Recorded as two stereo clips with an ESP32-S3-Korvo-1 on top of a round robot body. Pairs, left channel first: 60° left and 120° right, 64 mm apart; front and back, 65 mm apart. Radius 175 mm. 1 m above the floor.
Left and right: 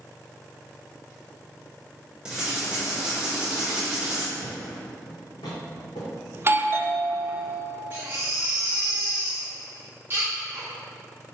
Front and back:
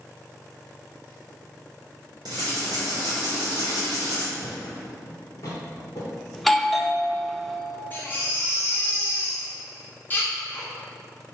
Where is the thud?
45° left, 0.8 m.